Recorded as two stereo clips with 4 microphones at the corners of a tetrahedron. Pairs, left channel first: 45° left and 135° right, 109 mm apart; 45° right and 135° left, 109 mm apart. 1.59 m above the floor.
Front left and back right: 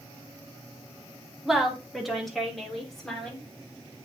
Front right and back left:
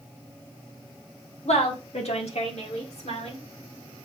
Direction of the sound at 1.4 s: 50° right.